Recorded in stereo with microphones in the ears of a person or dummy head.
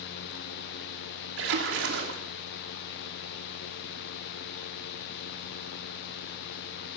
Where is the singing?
I don't hear singing.